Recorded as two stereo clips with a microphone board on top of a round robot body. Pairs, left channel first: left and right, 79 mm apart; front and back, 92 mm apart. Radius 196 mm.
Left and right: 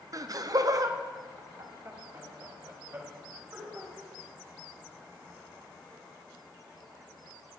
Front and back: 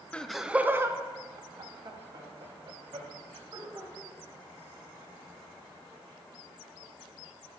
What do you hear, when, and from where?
0.1 s laughter: 75° right, 0.8 m; by 3.9 s 155° right, 3.5 m